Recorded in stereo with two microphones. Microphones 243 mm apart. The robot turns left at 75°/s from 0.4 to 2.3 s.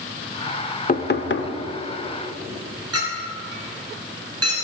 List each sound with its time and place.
0.9 s knocking: 130° left, 0.7 m; by 1.5 s 85° left, 0.7 m
2.9 s a clink: 85° right, 4 m